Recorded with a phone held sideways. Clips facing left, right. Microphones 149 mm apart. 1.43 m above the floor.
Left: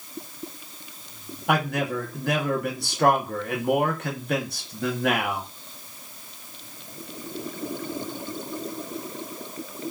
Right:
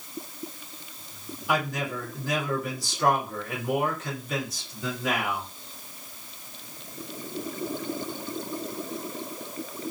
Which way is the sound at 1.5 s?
65° left (ahead or behind).